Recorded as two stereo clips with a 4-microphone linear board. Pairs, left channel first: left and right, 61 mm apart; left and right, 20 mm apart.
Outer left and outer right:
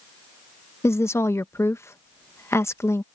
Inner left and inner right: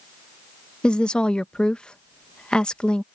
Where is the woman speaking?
55° left (ahead or behind).